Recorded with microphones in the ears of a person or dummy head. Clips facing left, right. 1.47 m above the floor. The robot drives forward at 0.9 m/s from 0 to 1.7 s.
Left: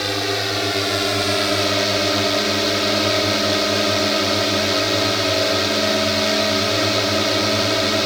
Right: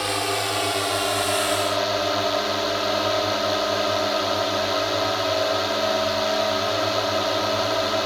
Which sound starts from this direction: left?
A drone, at 0.0 s.